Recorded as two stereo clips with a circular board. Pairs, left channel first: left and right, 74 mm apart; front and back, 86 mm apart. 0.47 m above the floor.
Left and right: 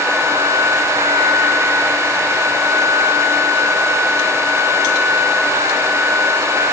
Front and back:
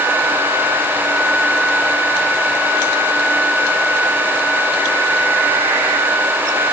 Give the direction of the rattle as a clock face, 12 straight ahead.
No rattle in this recording.